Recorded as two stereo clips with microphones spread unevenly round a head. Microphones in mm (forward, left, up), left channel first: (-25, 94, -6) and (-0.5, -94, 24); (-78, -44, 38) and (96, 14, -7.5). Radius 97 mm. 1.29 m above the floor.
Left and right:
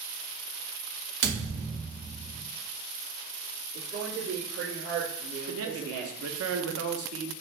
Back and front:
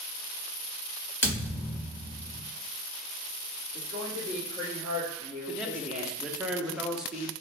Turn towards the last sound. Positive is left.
turn(degrees=-70)